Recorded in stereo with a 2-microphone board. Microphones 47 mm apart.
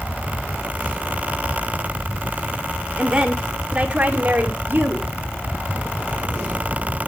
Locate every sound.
3.0 s a woman speaking: 15° right (ahead or behind), 2 m; by 5.1 s 40° right (ahead or behind), 2.5 m